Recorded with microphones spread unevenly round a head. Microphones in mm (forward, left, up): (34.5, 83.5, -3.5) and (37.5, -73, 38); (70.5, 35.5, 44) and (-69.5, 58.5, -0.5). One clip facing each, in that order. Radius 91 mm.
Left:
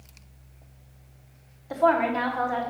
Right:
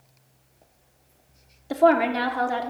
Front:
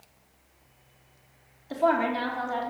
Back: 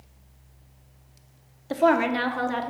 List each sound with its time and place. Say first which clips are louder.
1.7 s a woman speaking: right 3 dB, back 4 dB; 150° right, 0.9 m